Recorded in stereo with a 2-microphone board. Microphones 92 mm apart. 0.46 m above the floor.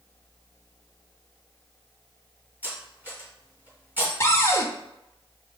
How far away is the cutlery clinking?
About 2 m.